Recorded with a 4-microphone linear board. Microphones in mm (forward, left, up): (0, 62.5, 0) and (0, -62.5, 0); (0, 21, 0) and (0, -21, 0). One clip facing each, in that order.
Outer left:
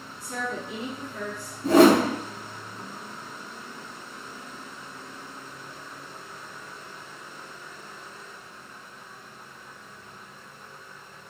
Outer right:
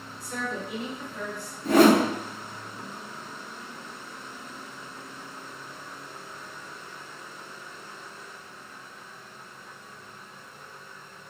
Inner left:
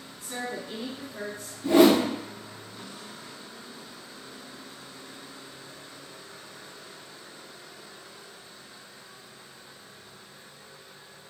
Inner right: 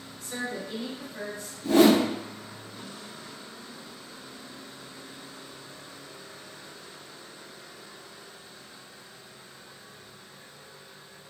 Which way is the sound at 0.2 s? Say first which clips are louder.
Outer left 1 dB, inner right 1 dB; 20° left (ahead or behind).